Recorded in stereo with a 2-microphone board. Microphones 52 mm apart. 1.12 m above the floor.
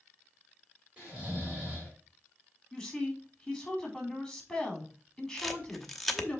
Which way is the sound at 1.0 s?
20° right (ahead or behind).